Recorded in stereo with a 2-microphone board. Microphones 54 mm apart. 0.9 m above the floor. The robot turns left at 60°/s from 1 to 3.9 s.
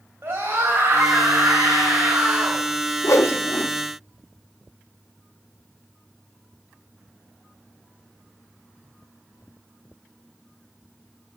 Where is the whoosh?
65° left (ahead or behind), 0.8 m; by 3.7 s 35° left (ahead or behind), 0.8 m.